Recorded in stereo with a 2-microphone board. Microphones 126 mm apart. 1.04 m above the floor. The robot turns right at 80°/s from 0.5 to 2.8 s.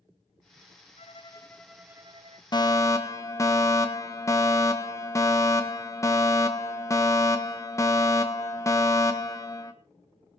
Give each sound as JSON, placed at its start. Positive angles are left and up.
{"t": 1.0, "sound": "a violin", "azimuth_deg": 120, "distance_m": 0.7}
{"t": 2.5, "sound": "a fire alarm", "side_deg": 35, "distance_m": 1.5}